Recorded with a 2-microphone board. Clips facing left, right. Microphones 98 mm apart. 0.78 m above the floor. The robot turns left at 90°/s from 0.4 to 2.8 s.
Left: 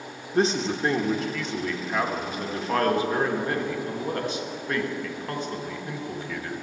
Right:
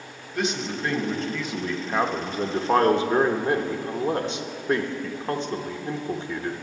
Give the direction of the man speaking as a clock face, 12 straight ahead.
9 o'clock.